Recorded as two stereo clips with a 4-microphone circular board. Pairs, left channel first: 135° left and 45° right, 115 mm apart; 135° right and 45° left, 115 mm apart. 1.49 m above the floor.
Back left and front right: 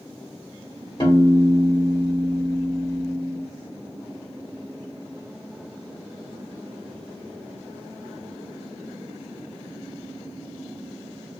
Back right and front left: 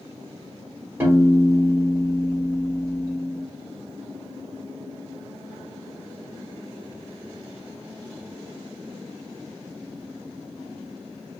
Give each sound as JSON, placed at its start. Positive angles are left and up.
{"t": 1.0, "sound": "a piano", "azimuth_deg": 110, "distance_m": 1.5}